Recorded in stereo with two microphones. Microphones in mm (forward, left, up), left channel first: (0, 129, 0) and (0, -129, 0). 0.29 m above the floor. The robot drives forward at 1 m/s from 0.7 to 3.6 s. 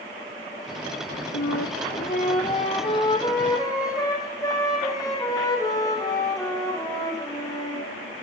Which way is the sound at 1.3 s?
80° left.